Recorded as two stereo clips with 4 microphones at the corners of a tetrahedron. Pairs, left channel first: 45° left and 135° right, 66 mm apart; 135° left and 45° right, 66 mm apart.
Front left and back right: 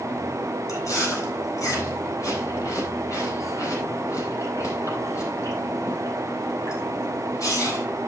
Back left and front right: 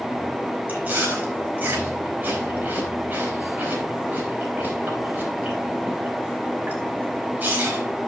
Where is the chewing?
20° left, 4 m.